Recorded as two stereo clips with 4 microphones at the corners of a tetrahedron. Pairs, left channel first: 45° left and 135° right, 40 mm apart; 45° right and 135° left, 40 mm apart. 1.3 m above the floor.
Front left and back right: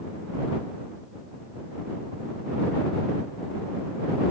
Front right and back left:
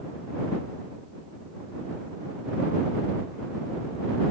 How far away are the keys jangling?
I don't hear keys jangling.